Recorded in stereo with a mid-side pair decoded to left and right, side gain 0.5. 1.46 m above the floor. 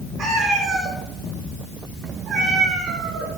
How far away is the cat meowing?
About 5.5 m.